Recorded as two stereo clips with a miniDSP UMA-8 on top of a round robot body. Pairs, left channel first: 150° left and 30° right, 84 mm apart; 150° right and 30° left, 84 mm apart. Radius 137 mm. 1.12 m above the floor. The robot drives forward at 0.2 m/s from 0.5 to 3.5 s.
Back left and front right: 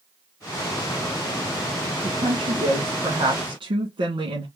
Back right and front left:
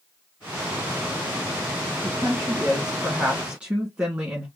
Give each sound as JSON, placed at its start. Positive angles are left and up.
{"t": 2.0, "sound": "a woman speaking", "azimuth_deg": -40, "distance_m": 2.0}